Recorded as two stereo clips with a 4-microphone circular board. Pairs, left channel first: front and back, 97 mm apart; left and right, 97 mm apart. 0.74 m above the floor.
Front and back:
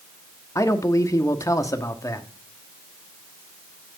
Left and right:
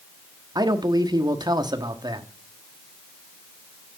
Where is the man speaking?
50° right, 1.1 m.